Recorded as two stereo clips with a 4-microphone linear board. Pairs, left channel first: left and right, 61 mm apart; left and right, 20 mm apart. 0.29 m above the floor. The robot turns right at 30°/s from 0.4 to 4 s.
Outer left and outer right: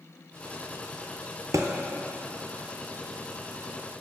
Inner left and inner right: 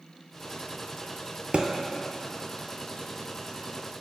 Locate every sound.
1.5 s a thud: 65° right (ahead or behind), 0.7 m; by 1.7 s 60° right (ahead or behind), 0.7 m